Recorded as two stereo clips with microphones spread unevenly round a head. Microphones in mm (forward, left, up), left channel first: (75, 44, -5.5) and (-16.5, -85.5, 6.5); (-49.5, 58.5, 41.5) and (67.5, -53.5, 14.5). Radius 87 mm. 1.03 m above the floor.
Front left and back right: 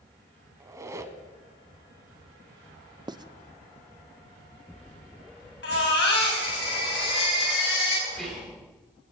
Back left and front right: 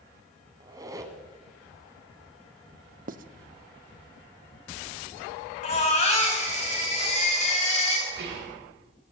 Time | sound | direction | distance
0.6 | a squeak | 110° right | 0.9 m
3.1 | writing | 60° right | 0.6 m
5.6 | a baby crying | 90° left | 4 m
8.1 | whispering | 35° right | 3.5 m